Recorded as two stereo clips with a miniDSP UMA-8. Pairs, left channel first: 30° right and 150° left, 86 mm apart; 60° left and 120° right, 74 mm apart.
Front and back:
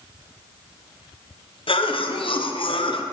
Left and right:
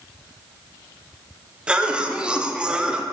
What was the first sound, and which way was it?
A cough, 45° right.